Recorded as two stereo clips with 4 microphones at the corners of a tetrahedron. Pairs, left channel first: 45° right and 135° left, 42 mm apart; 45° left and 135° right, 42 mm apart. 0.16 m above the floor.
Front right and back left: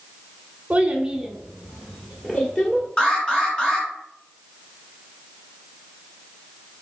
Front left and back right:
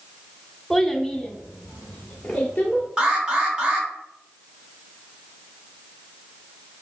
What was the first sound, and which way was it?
A child speaking, 135° left.